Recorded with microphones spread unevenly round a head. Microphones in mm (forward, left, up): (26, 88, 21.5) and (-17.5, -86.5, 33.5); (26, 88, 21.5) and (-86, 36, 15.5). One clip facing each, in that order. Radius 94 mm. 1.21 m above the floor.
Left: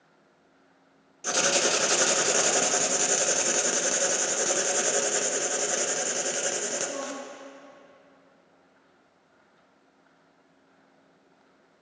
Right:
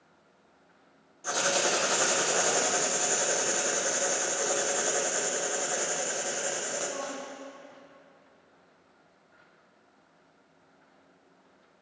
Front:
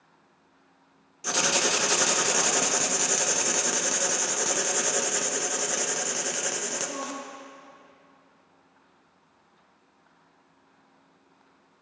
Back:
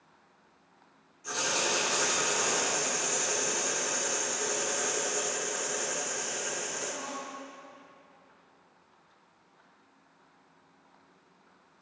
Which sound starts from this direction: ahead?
Writing, at 1.2 s.